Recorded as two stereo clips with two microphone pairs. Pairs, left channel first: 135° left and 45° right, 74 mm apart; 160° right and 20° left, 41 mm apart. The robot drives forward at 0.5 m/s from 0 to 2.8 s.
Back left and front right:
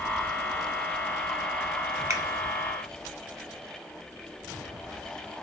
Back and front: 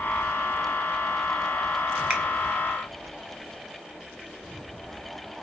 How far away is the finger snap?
About 1.3 m.